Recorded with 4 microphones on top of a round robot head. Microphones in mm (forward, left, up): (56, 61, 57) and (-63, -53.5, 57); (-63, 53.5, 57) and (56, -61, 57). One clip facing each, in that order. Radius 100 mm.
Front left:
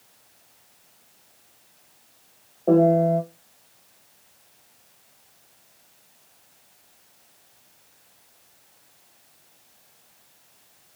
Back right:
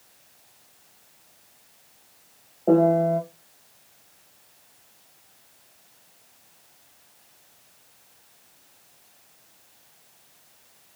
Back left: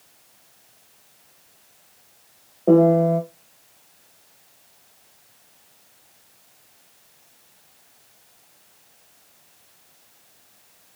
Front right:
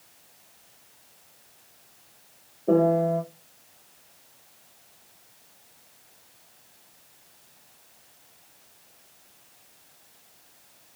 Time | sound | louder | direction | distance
2.7 | a piano | front left 1 dB, back left 6 dB | 140° left | 0.8 m